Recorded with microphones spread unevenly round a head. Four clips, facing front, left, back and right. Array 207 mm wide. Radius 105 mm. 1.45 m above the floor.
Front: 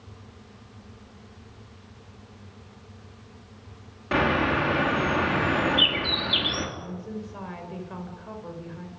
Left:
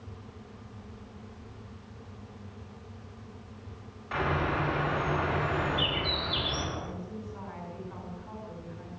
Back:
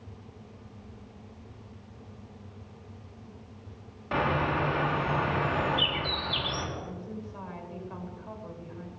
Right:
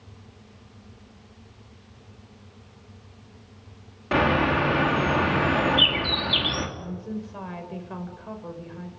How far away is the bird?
About 4 m.